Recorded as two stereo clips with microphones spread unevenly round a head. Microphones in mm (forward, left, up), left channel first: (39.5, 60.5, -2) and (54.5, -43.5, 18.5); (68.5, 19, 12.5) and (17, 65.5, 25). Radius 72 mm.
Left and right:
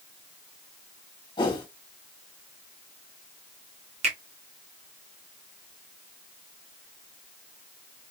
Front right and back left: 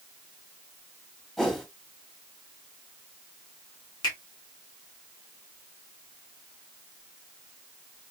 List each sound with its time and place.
1.4 s a whoosh: 55° left, 1.6 m
4.0 s a finger snap: 75° right, 1.5 m